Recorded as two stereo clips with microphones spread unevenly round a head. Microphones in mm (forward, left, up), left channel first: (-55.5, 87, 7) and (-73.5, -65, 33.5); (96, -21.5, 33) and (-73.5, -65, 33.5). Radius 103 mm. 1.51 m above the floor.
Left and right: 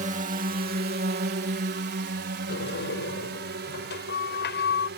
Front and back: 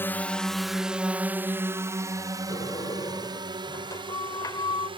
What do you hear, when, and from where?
0.0 s a drone: 60° right; by 5.0 s 105° right
2.5 s a sliding door: 90° left